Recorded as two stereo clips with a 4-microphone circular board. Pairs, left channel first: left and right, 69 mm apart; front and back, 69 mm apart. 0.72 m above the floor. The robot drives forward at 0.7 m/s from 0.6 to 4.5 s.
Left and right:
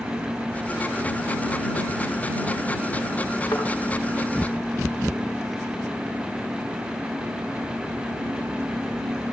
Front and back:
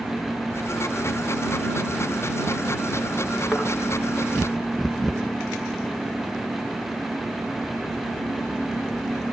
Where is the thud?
95° left, 4 m.